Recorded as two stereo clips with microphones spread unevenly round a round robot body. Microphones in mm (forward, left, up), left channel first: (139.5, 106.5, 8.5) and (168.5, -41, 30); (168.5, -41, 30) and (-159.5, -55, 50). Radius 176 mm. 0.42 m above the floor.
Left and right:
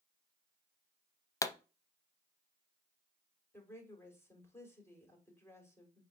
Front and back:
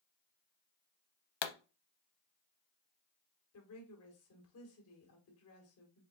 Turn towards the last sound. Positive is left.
turn(degrees=35)